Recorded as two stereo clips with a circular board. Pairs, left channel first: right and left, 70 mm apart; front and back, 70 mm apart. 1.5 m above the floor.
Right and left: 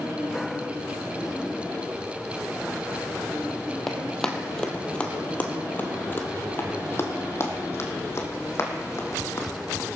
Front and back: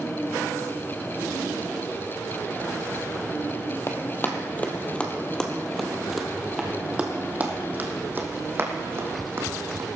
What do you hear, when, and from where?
3.9 s running footsteps: 5° right, 1.8 m; by 9.9 s 135° right, 3 m